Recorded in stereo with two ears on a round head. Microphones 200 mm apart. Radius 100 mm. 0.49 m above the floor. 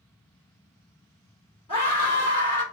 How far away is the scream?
About 1.7 m.